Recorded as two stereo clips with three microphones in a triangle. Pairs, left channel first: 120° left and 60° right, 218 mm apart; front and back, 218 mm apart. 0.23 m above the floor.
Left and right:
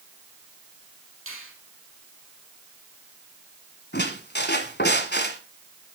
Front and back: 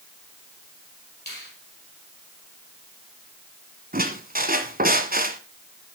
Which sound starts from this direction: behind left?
A squeak, at 3.9 s.